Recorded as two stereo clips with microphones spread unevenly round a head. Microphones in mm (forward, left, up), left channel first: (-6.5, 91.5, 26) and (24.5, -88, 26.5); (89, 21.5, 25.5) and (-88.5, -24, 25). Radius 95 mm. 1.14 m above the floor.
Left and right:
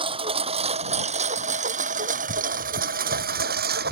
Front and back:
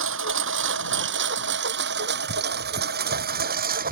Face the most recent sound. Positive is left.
turn(degrees=-120)